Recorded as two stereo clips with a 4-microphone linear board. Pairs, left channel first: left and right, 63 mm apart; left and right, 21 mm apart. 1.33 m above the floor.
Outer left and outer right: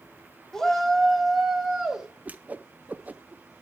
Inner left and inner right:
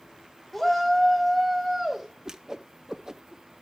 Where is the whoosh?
25° right (ahead or behind), 0.5 m.